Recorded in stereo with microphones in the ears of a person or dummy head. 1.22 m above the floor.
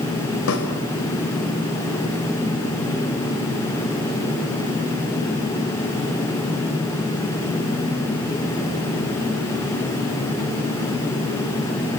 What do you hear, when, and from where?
0.5 s a snare drum: 75° left (ahead or behind), 4.5 m